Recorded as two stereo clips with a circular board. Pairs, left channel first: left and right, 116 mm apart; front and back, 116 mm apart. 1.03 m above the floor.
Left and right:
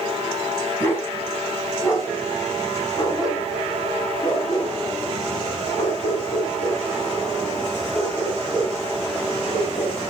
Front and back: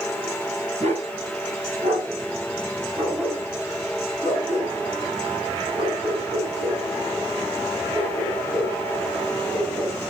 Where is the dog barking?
160° left, 4 m; by 10.0 s 130° left, 7.5 m.